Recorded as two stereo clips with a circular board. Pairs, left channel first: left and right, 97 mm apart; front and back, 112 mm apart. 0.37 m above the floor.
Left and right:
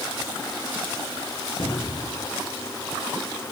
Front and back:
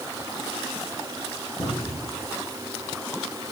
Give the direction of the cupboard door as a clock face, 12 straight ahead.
10 o'clock.